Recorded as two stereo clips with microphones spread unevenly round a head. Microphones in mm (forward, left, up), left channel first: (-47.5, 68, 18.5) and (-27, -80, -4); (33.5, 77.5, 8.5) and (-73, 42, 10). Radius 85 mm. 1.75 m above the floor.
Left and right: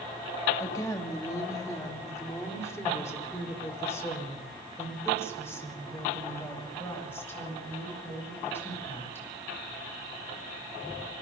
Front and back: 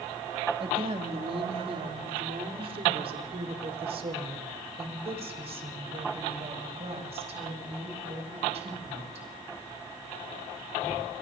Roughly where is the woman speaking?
Behind.